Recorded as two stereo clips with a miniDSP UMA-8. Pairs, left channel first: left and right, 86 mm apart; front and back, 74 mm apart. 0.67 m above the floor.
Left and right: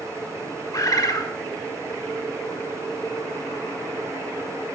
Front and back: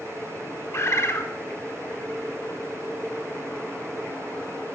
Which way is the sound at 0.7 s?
50° left.